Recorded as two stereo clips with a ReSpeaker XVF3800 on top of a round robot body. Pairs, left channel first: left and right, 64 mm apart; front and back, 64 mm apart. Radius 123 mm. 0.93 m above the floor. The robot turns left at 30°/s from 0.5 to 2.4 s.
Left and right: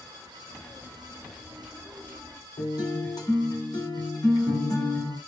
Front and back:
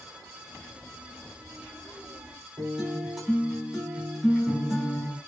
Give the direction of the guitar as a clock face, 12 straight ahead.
9 o'clock.